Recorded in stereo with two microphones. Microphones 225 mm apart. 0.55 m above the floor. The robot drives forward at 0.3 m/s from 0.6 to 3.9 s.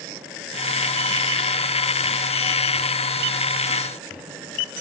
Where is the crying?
No crying in this recording.